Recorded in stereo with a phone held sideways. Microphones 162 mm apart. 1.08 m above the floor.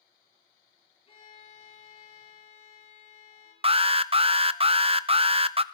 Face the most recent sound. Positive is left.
turn(degrees=-35)  # may be behind; listen again after turning